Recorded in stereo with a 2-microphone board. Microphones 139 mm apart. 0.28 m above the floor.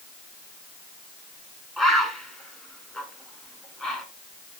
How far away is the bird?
About 1.4 m.